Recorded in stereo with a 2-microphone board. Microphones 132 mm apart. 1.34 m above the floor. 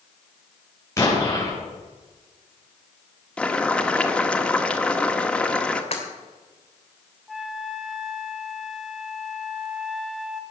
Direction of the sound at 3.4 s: 10° left (ahead or behind).